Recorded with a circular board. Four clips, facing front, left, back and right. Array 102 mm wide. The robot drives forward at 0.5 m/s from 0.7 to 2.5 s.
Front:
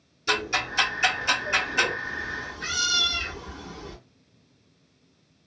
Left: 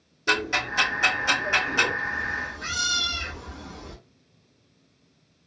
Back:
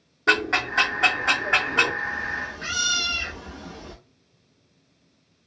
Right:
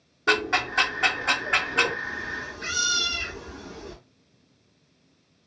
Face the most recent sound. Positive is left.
turn(degrees=180)